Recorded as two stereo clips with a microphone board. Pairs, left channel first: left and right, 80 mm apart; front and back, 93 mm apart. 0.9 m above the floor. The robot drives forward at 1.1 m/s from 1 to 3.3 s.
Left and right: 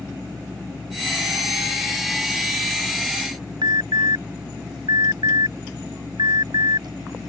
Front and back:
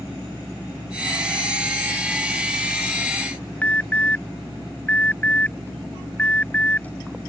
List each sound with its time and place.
3.6 s an alarm: 75° right